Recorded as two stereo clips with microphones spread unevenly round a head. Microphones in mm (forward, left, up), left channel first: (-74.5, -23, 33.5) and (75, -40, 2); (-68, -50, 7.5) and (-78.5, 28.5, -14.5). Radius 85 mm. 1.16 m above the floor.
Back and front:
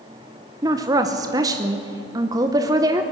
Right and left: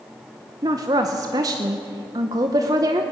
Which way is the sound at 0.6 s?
55° left.